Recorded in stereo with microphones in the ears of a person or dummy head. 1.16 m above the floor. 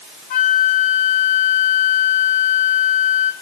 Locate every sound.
0.3 s a flute: 45° left (ahead or behind), 1.7 m